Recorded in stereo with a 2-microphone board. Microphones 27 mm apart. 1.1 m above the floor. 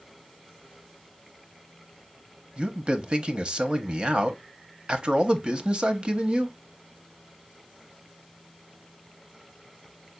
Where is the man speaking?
40° right (ahead or behind), 0.8 m.